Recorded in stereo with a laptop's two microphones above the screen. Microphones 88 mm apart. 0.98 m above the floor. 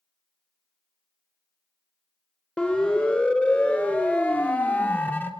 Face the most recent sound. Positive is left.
turn(degrees=25)  # may be behind; listen again after turning